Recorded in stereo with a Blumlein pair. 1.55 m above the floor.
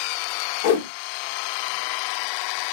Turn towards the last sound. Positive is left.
turn(degrees=50)